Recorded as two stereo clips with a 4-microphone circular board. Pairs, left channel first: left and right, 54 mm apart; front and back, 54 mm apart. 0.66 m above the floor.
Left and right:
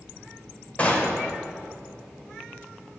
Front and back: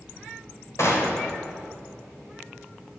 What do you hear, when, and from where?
0.8 s a gunshot: 25° left, 2.5 m